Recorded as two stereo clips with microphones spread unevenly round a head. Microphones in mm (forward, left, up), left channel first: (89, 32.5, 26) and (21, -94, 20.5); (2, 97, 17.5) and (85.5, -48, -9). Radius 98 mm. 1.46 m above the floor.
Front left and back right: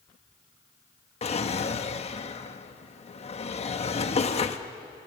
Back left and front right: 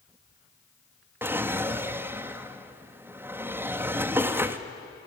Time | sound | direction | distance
1.2 | a drawer | 20° left | 1.3 m